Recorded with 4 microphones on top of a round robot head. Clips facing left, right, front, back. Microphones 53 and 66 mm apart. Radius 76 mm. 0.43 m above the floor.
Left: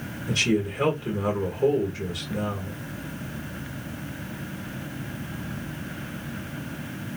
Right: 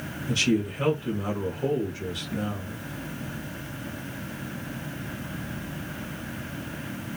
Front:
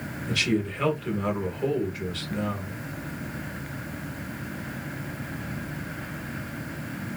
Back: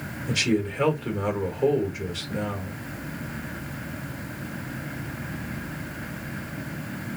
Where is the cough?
I don't hear a cough.